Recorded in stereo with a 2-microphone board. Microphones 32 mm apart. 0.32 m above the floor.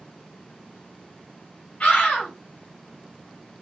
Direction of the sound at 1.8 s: 40° left (ahead or behind).